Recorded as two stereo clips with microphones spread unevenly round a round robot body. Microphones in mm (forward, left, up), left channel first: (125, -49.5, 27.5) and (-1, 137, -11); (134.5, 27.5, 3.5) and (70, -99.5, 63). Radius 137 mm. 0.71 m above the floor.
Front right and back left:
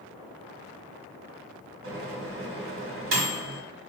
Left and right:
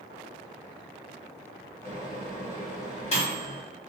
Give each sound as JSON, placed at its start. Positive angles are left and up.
{"t": 1.8, "sound": "a microwave", "azimuth_deg": 110, "distance_m": 1.4}